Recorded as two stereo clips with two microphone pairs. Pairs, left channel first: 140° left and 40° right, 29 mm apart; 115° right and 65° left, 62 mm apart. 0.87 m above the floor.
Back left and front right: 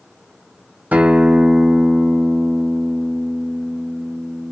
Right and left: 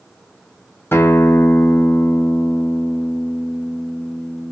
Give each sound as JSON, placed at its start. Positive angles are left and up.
{"t": 0.9, "sound": "a guitar", "azimuth_deg": -60, "distance_m": 0.6}